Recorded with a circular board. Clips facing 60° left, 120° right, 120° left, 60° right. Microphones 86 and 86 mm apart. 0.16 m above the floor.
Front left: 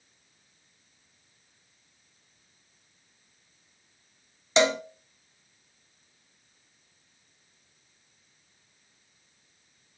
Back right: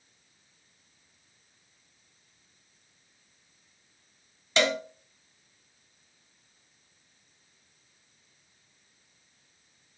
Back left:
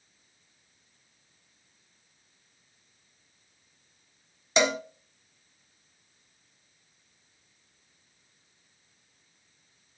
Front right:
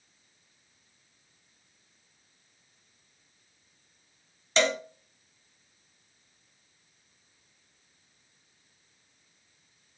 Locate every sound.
4.6 s a cowbell: 70° left, 0.7 m